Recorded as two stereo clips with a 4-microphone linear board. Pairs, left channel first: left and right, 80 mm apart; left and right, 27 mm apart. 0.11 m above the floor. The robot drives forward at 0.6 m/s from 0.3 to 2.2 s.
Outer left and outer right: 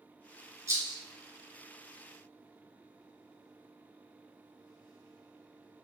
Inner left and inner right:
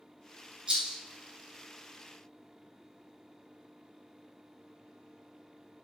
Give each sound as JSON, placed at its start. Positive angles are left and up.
{"t": 0.7, "sound": "a rattle", "side_deg": -35, "distance_m": 1.1}